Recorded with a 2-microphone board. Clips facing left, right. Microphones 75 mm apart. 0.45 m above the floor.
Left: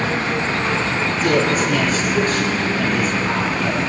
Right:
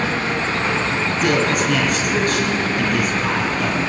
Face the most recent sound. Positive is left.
turn(degrees=-70)  # may be behind; listen again after turning